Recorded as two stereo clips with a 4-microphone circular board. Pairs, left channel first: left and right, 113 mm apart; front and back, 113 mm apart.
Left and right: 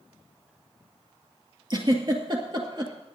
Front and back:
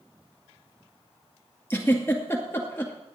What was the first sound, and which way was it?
A giggle, 60° right.